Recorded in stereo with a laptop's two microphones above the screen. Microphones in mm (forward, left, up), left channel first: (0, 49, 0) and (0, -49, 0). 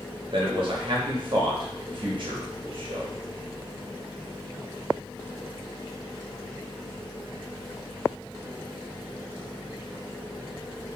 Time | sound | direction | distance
0.3 | a man speaking | 50° right (ahead or behind) | 0.6 m